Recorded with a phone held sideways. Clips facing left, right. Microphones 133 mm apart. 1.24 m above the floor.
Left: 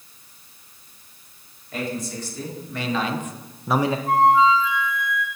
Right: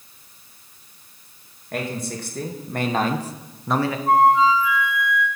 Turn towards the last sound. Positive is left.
turn(degrees=-35)  # may be behind; listen again after turning